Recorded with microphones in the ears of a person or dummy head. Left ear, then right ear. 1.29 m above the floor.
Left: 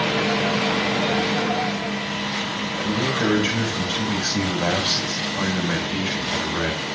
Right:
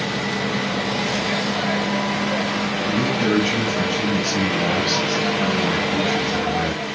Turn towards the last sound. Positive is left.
turn(degrees=35)  # may be behind; listen again after turning